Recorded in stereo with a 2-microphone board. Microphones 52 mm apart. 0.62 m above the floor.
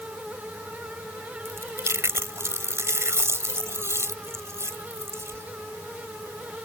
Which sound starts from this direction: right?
Chewing, at 1.4 s.